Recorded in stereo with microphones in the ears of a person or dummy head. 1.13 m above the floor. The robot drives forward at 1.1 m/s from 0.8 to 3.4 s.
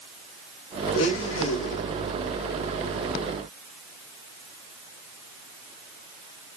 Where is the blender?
75° left (ahead or behind), 1.7 m; by 1.8 s 65° left (ahead or behind), 1.8 m.